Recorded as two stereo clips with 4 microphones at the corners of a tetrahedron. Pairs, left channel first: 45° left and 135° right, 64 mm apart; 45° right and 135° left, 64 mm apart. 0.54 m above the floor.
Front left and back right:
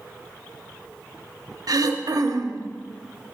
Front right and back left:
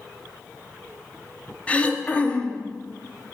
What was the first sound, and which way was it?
Throat clearing, 115° right.